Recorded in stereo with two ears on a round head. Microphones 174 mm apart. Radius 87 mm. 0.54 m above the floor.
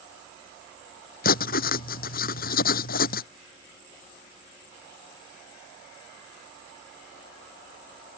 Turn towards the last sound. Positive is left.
turn(degrees=50)  # may be behind; listen again after turning